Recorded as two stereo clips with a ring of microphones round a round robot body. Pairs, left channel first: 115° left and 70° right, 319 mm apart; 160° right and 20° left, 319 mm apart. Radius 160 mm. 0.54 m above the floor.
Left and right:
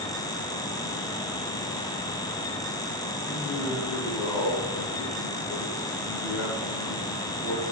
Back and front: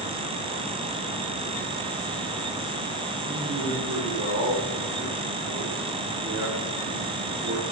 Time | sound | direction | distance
3.2 | a man speaking | 65° left | 2.5 m